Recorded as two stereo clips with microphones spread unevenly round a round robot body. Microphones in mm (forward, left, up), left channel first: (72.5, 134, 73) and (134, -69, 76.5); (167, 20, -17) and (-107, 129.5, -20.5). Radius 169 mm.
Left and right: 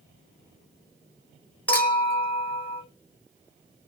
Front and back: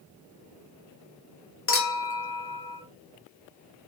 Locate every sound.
1.7 s a clink: 25° left, 1.2 m